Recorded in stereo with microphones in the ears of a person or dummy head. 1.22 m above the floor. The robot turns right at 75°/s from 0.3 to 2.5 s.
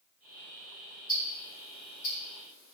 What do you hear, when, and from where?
1.1 s ticking: 10° right (ahead or behind), 1.6 m; by 2.7 s 70° left (ahead or behind), 1.6 m